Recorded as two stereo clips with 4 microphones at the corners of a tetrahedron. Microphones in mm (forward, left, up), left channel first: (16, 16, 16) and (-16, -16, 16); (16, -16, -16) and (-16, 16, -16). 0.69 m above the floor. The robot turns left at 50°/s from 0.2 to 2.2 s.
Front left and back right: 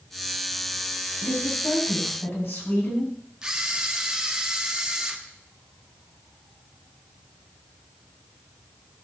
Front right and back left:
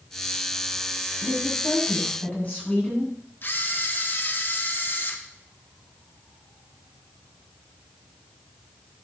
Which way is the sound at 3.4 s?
65° right.